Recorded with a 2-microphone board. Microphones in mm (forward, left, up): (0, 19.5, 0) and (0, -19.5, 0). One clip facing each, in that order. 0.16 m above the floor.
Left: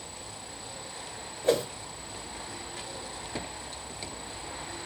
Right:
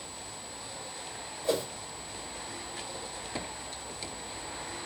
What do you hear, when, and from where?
1.4 s a whoosh: 50° left (ahead or behind), 1.7 m